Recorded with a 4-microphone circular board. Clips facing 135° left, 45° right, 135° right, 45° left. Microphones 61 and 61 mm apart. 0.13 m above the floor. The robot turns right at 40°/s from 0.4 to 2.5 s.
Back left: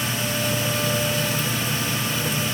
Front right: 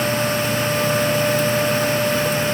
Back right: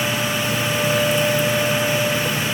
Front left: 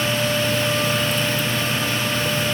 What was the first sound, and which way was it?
Only background noise.